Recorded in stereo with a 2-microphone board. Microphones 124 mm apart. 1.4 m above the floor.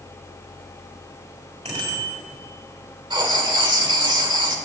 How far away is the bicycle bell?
About 4.5 m.